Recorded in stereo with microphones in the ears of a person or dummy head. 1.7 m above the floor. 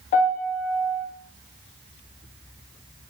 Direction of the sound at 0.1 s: 30° left (ahead or behind).